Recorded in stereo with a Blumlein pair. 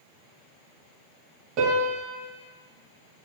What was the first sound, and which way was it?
A piano, 40° right.